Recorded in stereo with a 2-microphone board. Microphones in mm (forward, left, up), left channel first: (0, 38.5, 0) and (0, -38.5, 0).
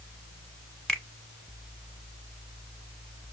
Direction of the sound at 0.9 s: 5° left (ahead or behind).